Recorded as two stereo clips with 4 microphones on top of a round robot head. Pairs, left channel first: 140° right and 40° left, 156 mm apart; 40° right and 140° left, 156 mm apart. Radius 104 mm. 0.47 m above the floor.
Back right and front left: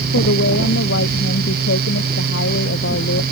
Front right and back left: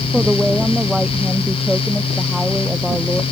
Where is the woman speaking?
135° right.